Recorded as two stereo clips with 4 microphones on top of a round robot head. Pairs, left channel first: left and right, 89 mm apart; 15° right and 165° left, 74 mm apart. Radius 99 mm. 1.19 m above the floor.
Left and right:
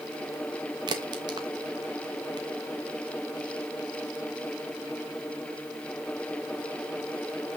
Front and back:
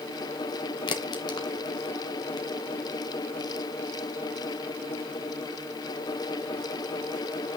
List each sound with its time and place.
0.9 s a crack: 45° right, 1.2 m